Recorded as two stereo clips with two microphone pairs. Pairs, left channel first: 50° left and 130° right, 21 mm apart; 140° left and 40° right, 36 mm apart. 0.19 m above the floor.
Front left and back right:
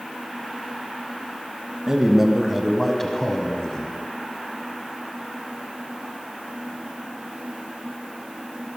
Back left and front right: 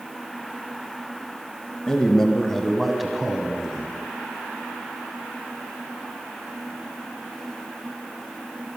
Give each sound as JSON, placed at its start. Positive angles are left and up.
{"t": 1.9, "sound": "a man speaking", "azimuth_deg": -165, "distance_m": 1.1}